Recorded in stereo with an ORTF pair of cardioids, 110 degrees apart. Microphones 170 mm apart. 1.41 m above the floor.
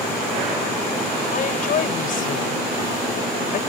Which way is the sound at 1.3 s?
55° left.